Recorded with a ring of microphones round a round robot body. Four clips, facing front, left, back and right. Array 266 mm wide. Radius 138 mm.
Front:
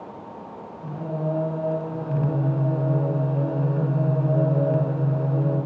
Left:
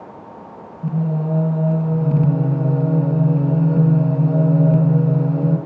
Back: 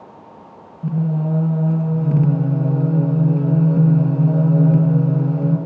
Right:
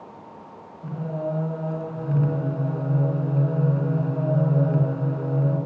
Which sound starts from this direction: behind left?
Singing, at 0.8 s.